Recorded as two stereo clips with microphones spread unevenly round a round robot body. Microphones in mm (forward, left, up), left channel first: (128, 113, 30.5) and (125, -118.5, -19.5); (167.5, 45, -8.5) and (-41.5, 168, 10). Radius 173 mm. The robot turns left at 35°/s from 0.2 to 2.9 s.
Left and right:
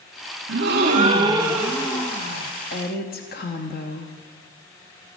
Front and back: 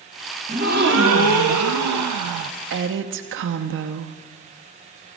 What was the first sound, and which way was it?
A gasp, 140° right.